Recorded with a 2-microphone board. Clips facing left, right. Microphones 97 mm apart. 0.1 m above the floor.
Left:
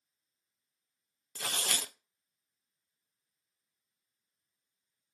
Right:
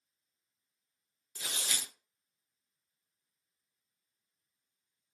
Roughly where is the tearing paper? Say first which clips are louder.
Left 5 dB; left.